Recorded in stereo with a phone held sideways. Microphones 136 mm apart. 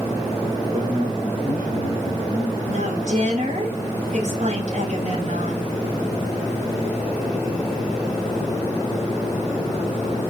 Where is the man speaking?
85° right, 6 m; by 2.6 s 80° right, 5.5 m.